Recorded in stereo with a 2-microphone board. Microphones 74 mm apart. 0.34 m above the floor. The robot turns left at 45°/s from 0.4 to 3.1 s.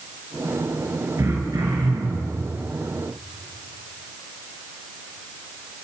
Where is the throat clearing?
40° right, 4.5 m; by 2.4 s 95° right, 4.5 m.